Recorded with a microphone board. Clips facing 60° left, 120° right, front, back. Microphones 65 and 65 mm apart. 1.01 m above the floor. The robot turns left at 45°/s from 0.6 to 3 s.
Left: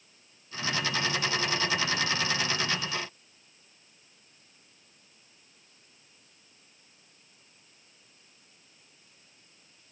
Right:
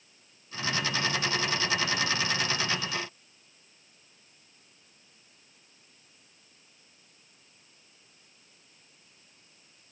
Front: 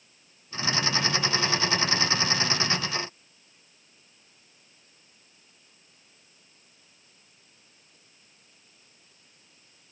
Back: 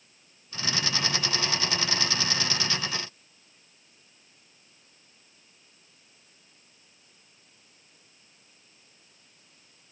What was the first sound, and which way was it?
Only background noise.